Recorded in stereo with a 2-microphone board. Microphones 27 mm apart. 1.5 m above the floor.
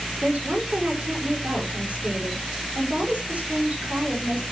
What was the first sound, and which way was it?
A woman speaking, 60° right (ahead or behind).